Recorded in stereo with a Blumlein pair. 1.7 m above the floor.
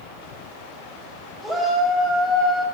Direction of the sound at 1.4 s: 5° right.